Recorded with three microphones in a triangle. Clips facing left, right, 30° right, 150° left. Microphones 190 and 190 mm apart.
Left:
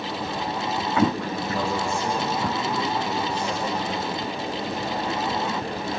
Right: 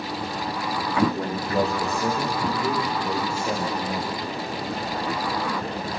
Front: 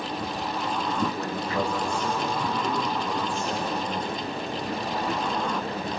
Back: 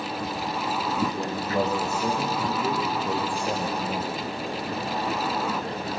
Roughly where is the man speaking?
Behind right.